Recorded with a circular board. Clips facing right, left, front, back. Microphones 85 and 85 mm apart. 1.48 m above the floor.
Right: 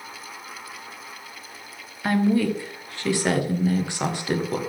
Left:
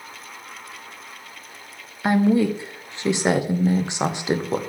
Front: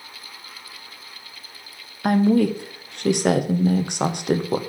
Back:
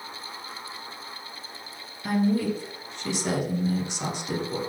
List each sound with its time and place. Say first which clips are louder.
2.0 s a woman speaking: left 3 dB, front 7 dB; 20° left, 0.7 m